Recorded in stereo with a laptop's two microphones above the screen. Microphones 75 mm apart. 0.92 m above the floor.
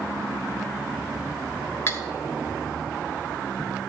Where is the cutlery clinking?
35° left (ahead or behind), 1.3 m.